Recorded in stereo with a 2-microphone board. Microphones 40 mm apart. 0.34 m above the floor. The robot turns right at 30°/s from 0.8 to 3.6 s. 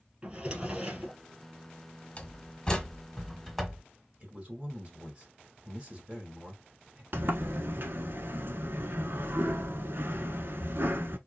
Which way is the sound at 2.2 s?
30° left (ahead or behind).